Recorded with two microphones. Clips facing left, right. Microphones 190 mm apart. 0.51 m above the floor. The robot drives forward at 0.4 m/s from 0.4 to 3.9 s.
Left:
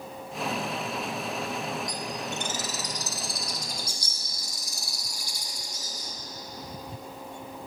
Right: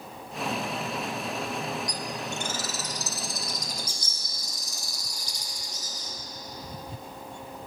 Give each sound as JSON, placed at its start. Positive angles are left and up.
{"t": 1.9, "sound": "a bird", "side_deg": 25, "distance_m": 0.6}